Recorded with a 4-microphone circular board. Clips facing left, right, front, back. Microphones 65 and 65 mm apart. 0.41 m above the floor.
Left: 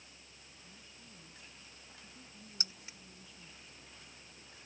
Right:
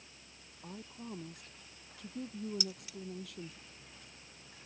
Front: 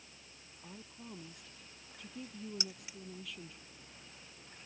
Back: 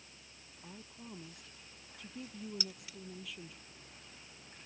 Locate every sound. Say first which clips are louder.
0.6 s a woman speaking: right 15 dB, even; 90° right; by 3.6 s 95° right
2.6 s keys jangling: right 7 dB, even; 60° left